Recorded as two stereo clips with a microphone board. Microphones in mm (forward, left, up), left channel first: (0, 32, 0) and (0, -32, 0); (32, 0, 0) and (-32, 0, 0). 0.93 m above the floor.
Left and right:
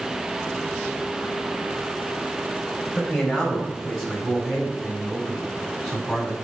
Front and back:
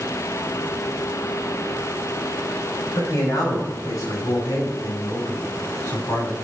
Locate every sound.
3.0 s a man speaking: 5° right, 4 m; by 6.3 s 10° right, 6 m